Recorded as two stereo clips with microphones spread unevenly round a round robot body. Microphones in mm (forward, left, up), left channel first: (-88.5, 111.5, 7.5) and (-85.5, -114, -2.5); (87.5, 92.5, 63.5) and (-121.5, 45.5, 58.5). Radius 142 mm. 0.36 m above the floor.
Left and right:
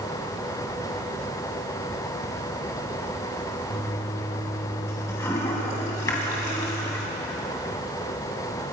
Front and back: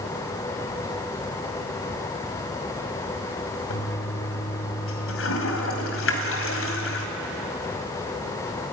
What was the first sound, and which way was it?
A toilet flushing, 10° left.